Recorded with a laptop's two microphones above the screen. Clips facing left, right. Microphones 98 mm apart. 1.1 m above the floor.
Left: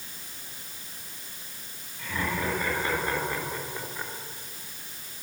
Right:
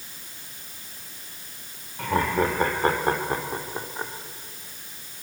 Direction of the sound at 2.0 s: 60° right (ahead or behind).